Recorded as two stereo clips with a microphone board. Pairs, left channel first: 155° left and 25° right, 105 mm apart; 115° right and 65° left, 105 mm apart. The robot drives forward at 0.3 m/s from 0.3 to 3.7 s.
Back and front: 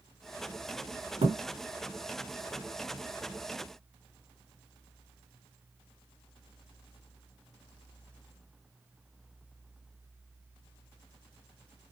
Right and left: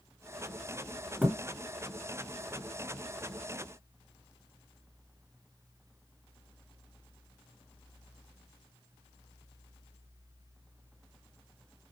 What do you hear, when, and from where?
1.2 s a thud: 15° right, 2.5 m